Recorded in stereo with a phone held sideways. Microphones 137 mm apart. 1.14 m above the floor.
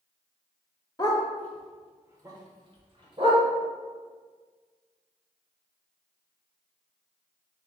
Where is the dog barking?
30° left (ahead or behind), 0.8 m; by 3.4 s 45° right (ahead or behind), 1.6 m.